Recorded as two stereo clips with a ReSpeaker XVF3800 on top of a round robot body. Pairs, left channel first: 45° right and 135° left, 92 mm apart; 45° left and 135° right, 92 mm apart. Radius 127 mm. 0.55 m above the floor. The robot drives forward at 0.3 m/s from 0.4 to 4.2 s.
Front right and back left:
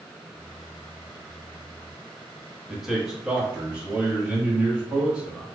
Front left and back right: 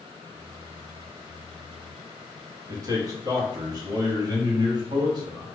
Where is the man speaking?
140° right, 1.3 m; by 5.5 s 155° right, 1.6 m.